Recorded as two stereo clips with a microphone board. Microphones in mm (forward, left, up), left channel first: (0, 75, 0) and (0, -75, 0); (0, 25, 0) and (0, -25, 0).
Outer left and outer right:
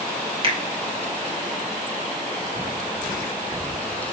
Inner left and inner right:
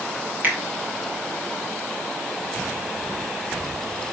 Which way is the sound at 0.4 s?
40° right (ahead or behind).